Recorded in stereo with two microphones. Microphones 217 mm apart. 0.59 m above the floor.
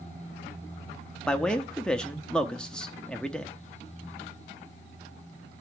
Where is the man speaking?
5° left (ahead or behind), 0.7 m.